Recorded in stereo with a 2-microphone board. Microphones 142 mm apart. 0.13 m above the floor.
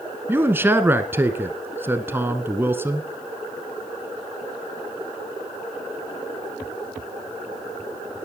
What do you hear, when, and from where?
0.3 s a man speaking: 15° right (ahead or behind), 1.4 m